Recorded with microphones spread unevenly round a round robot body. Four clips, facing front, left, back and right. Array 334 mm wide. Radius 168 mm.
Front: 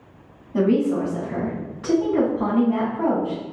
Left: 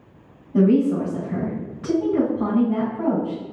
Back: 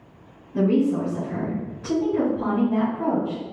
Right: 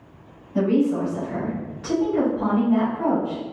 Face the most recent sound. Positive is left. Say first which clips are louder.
# left 3 dB, front 1 dB
turn(degrees=75)